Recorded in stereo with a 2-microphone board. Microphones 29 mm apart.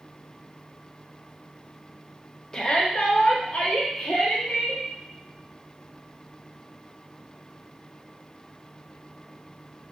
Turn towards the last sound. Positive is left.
turn(degrees=65)  # may be behind; listen again after turning